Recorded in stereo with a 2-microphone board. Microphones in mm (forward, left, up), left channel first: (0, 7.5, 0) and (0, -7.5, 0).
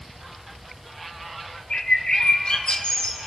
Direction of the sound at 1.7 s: 70° left (ahead or behind).